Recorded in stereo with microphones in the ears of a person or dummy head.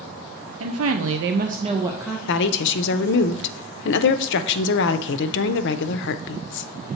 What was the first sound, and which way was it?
A woman speaking, 70° right (ahead or behind).